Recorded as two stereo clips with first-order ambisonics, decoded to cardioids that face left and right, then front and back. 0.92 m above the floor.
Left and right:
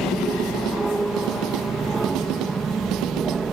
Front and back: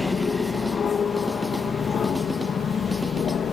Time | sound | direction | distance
0.0 | an aircraft | 20° right | ?